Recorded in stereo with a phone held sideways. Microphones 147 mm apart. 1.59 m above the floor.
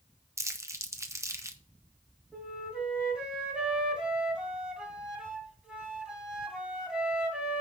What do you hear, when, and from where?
0.4 s crumpling: 20° right (ahead or behind), 0.9 m
2.3 s a flute: 5° right (ahead or behind), 1.8 m